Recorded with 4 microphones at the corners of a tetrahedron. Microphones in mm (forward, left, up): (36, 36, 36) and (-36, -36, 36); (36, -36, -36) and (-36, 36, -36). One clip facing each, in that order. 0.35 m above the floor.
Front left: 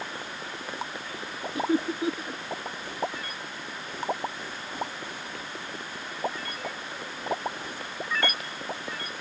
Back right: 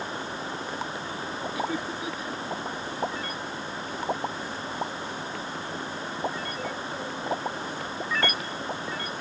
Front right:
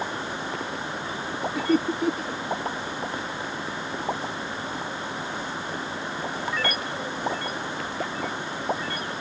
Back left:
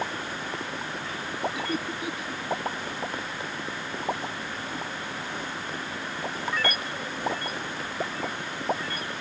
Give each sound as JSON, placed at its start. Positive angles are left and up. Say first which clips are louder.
{"t": 1.6, "sound": "laughter", "louder": "front left 7 dB, front right 8 dB", "azimuth_deg": -10}